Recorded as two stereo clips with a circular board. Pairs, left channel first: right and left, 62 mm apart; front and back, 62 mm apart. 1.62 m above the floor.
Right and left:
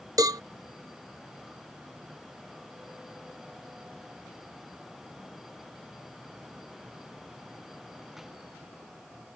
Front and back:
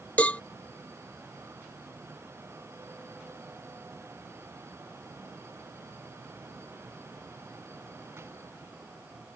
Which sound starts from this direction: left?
A cowbell, at 0.2 s.